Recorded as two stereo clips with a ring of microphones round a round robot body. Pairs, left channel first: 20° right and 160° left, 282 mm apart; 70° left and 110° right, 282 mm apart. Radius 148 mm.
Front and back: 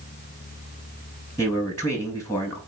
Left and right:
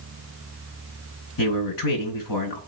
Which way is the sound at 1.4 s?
55° left.